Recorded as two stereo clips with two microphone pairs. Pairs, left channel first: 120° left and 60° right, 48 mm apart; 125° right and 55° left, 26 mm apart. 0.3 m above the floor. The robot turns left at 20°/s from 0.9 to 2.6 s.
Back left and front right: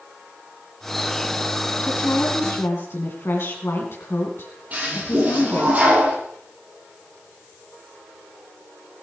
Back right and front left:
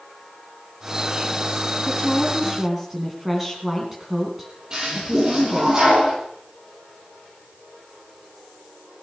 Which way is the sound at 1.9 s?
155° left.